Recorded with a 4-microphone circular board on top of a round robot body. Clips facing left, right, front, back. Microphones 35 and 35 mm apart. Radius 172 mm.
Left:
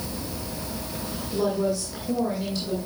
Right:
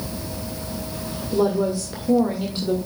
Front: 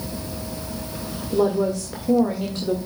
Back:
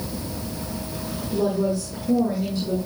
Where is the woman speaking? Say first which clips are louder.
Right 4 dB, front 3 dB; 25° right, 1.9 m.